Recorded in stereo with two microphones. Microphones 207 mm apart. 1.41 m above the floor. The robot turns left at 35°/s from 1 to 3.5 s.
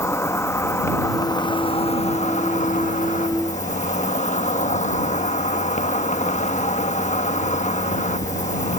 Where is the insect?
160° left; by 8.8 s 70° left.